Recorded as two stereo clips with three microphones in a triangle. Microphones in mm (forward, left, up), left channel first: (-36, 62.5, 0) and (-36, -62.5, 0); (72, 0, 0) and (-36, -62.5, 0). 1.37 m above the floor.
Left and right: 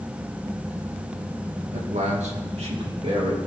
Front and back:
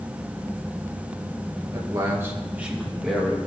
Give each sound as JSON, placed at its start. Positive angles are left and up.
{"t": 1.7, "sound": "a man speaking", "azimuth_deg": -95, "distance_m": 2.0}